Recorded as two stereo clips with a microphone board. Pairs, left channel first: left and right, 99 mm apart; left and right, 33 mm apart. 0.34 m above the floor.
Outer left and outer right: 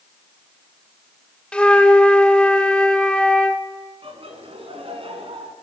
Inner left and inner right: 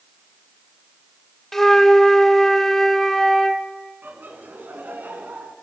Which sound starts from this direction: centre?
A flute, at 1.5 s.